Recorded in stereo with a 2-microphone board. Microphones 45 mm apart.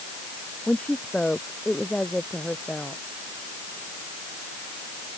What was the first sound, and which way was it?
A woman speaking, 25° left (ahead or behind).